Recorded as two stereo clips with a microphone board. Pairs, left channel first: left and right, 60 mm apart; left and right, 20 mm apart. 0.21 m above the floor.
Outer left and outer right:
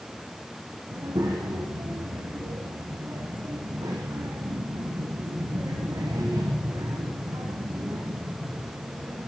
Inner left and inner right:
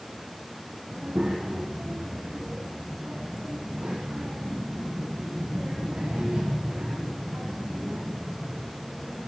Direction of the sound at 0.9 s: 85° right.